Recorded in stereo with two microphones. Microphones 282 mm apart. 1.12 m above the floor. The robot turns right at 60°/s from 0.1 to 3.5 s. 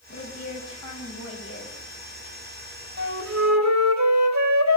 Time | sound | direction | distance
0.1 | a woman speaking | 50° left | 7 m
3.0 | a flute | 135° right | 3.5 m